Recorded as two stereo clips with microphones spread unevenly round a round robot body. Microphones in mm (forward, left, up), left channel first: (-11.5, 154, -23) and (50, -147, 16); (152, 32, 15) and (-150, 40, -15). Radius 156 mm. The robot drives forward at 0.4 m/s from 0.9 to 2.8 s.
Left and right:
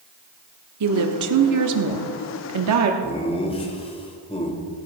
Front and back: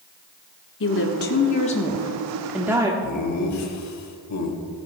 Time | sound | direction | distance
0.8 | a woman speaking | 50° right | 1.1 m
3.0 | laughter | 30° left | 2.5 m